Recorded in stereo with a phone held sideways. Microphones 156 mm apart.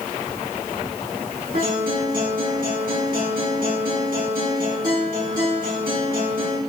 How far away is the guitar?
About 4.5 m.